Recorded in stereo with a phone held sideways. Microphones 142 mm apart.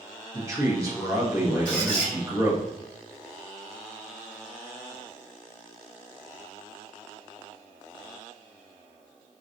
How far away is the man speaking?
About 1.2 m.